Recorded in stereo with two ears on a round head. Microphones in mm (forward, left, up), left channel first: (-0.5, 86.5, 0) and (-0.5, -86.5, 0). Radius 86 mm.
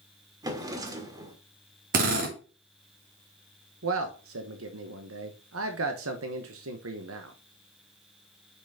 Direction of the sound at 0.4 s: 20° right (ahead or behind).